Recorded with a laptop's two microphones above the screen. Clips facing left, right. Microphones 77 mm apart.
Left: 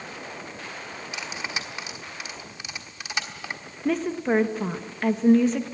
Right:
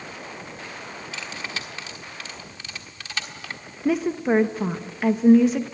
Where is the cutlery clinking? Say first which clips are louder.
Left 1 dB; 15° left (ahead or behind), 1.3 m.